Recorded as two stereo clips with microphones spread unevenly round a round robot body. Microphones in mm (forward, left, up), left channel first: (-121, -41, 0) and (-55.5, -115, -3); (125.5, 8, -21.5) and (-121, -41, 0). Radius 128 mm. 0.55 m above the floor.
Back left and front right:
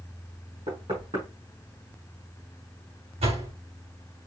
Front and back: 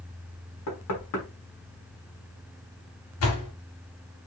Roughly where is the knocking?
Ahead.